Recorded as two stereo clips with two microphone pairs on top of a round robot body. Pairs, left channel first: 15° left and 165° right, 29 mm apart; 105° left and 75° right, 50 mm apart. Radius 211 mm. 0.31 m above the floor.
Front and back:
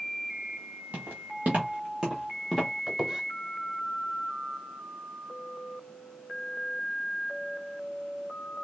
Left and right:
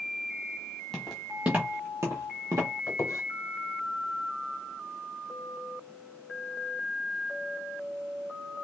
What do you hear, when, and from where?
0.9 s footsteps: 175° right, 0.7 m; by 2.7 s 70° right, 0.7 m
2.9 s a squeak: 120° left, 0.8 m